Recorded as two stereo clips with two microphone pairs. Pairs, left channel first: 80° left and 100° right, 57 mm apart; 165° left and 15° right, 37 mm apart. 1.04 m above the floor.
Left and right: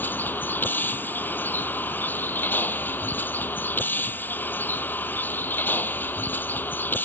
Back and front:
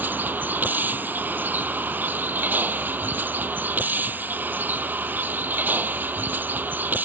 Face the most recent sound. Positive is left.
turn(degrees=25)